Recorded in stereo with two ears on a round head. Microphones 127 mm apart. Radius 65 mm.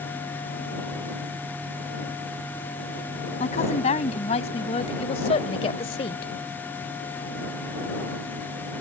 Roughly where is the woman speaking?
Left.